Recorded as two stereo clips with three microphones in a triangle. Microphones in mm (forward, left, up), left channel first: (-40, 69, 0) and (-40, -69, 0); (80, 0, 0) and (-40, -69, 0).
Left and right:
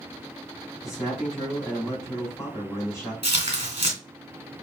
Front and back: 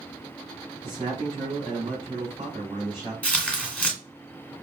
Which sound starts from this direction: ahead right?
Tearing paper, at 3.2 s.